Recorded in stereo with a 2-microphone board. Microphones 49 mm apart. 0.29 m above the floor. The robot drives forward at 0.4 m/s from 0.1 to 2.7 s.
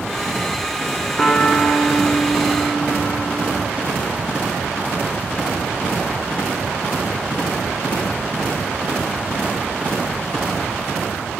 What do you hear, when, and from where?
1.2 s a piano: 10° left (ahead or behind), 1.2 m; by 3.7 s 5° left (ahead or behind), 1.8 m